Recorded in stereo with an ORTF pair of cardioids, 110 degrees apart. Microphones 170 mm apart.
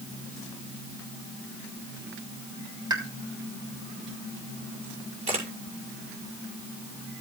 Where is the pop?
25° right, 3 m.